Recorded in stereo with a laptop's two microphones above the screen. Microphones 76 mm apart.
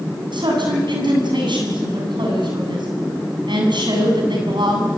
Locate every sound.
0.3 s a man speaking: 85° right, 8.5 m